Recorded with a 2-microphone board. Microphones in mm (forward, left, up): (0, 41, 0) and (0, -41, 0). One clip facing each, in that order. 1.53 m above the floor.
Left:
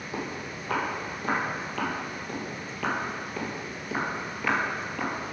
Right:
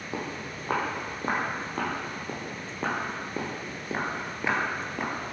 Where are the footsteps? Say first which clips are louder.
Even; 30° right (ahead or behind), 3 m; by 5.3 s 15° right (ahead or behind), 1.6 m.